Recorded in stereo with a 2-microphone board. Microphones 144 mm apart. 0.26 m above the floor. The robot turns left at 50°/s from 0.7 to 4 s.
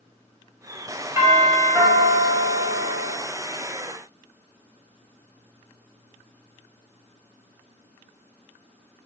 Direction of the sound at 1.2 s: 20° right (ahead or behind).